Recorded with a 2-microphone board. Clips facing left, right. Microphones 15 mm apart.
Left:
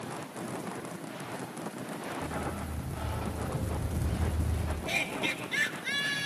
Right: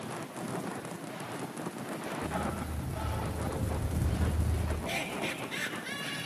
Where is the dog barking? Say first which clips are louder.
Right 1 dB; 30° right (ahead or behind), 3.5 m; by 4.8 s 10° right (ahead or behind), 4.5 m.